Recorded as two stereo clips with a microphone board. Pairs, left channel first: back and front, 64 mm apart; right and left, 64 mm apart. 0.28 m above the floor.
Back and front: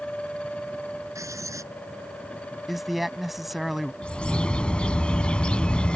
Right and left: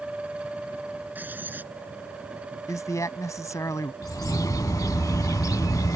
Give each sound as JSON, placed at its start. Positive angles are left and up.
{"t": 1.1, "sound": "writing", "azimuth_deg": 30}
{"t": 2.7, "sound": "a man speaking", "azimuth_deg": -85}
{"t": 4.0, "sound": "a bird", "azimuth_deg": -105}